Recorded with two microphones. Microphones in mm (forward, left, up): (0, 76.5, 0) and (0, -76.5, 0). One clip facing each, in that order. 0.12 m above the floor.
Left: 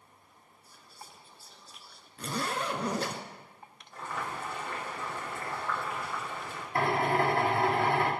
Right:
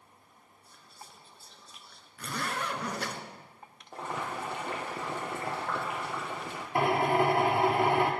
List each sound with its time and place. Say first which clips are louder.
0.7 s whispering: left 1 dB; 5° left (ahead or behind), 1.8 m
2.2 s a zipper: left 2 dB; 30° left (ahead or behind), 1.3 m
3.9 s boiling: right 2 dB; 70° right (ahead or behind), 3 m
6.8 s a drill: right 2 dB; 20° right (ahead or behind), 2 m